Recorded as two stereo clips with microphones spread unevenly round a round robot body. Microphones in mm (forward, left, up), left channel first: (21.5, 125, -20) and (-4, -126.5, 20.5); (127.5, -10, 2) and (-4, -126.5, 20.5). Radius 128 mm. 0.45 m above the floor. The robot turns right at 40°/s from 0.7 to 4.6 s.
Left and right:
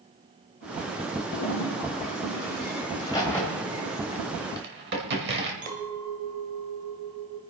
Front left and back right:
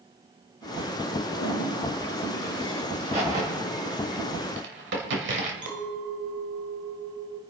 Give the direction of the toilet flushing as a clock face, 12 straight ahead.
10 o'clock.